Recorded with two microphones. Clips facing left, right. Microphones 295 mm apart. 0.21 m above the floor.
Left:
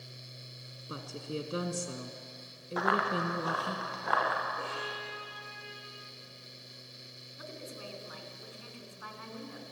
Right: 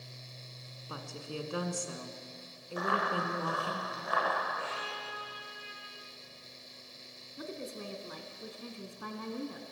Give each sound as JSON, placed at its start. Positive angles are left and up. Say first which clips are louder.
{"t": 0.9, "sound": "a woman speaking", "louder": "left 4 dB", "side_deg": 25, "distance_m": 2.0}
{"t": 2.8, "sound": "running footsteps", "louder": "left 2 dB", "side_deg": 75, "distance_m": 4.5}
{"t": 4.6, "sound": "a violin", "louder": "left 2 dB", "side_deg": 50, "distance_m": 4.0}
{"t": 7.4, "sound": "a woman speaking", "louder": "right 5 dB", "side_deg": -50, "distance_m": 2.5}